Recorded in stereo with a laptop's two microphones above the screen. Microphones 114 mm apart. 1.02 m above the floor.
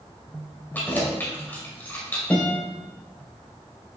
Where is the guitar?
15° left (ahead or behind), 3.5 m.